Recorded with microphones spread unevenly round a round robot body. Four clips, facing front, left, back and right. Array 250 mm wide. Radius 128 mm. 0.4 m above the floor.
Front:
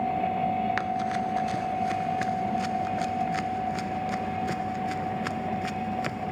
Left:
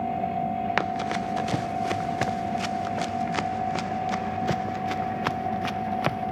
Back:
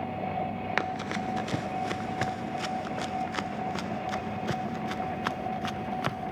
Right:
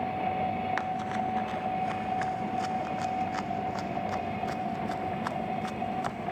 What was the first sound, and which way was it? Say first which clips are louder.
Running footsteps: left 4 dB, front 4 dB; 110° left.